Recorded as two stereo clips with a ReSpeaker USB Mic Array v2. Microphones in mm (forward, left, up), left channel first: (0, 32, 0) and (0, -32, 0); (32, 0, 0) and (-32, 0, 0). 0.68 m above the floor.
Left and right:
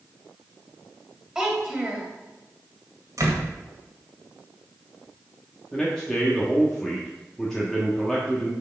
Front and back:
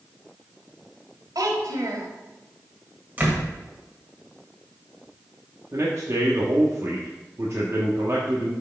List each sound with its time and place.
1.4 s a child speaking: 170° right, 1.8 m
3.2 s a door slam: 120° right, 1.9 m
5.7 s a man speaking: 170° left, 1.1 m